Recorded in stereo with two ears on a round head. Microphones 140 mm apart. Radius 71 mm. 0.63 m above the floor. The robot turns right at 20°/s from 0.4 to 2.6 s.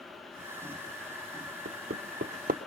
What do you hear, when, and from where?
1.6 s hammering: 75° right (ahead or behind), 0.8 m; by 2.6 s 60° right (ahead or behind), 0.8 m